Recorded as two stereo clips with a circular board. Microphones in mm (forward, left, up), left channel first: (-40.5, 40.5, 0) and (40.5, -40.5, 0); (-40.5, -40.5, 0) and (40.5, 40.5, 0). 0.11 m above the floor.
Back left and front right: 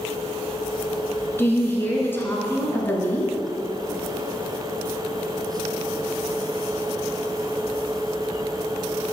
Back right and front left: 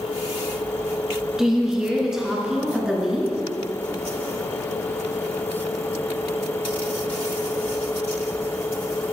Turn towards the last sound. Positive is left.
turn(degrees=120)